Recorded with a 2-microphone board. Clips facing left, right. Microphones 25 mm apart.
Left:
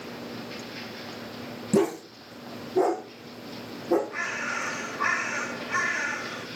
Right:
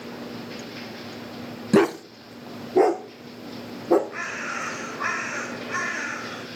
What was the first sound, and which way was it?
A dog barking, 55° right (ahead or behind).